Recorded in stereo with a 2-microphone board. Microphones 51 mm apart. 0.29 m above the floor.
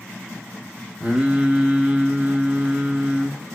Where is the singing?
25° right (ahead or behind), 1.6 m.